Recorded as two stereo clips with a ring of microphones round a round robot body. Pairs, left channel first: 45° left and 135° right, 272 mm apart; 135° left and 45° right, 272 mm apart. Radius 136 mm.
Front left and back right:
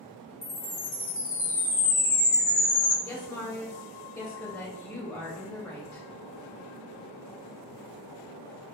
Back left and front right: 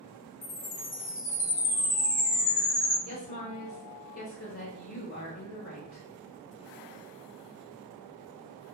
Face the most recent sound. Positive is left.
turn(degrees=115)